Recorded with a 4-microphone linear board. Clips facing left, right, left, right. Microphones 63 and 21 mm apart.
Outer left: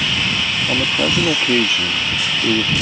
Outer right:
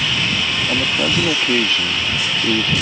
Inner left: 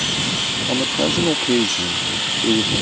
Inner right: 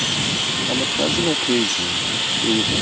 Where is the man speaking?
10° left (ahead or behind).